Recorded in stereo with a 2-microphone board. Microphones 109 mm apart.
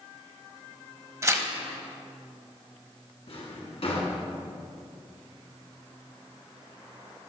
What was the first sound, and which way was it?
Tearing paper, 25° right (ahead or behind).